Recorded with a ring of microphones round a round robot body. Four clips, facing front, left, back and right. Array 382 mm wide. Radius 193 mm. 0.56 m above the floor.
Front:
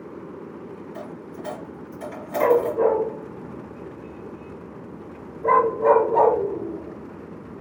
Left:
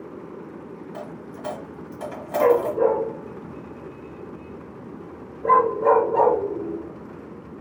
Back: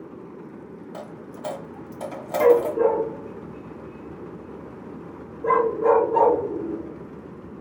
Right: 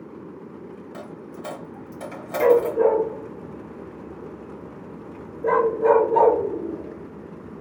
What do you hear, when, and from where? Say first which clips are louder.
0.9 s a dropped coin: left 1 dB, front 2 dB; 160° right, 1.6 m
2.4 s a dog barking: right 1 dB, back 1 dB; 125° right, 2.5 m